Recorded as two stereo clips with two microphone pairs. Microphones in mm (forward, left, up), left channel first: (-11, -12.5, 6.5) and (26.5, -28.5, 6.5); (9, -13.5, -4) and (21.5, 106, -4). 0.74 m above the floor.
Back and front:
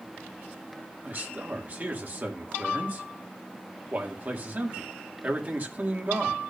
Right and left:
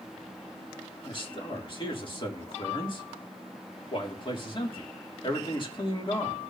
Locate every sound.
1.0 s a man speaking: 55° right, 1.6 m